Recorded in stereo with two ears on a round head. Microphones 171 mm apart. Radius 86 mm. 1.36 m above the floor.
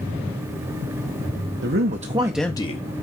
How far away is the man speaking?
About 1.1 m.